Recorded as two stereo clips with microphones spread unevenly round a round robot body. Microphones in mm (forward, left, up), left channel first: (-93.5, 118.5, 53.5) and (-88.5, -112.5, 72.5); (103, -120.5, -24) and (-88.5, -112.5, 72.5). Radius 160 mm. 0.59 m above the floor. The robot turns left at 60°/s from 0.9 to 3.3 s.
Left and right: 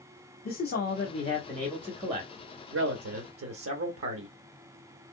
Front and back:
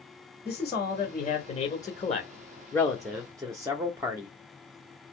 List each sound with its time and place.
0.5 s a man speaking: 50° left, 1.0 m; by 4.3 s 90° right, 1.0 m